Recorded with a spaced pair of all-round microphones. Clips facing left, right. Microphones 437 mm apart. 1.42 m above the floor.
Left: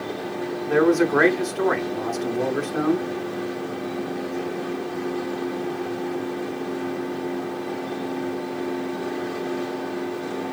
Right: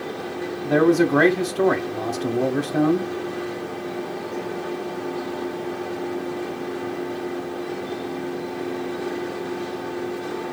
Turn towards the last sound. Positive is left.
turn(degrees=-55)  # may be behind; listen again after turning